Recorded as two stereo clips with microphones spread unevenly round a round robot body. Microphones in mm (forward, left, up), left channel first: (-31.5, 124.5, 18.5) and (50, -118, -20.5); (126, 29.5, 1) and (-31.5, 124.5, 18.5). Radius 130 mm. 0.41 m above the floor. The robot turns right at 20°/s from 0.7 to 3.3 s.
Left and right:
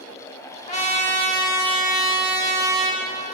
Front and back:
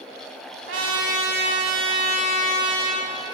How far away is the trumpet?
About 1.3 m.